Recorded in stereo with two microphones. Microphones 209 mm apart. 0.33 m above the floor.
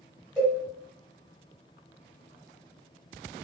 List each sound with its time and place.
0.4 s a cowbell: 5° right (ahead or behind), 1.9 m